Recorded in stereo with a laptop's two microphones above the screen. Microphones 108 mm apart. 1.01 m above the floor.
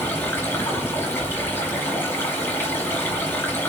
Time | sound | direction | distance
0.0 | running water | 25° left (ahead or behind) | 3 m